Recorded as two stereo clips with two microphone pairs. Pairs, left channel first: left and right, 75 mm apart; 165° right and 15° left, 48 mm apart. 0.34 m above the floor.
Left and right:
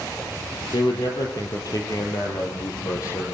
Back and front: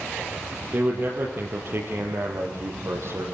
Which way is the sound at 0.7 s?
65° left.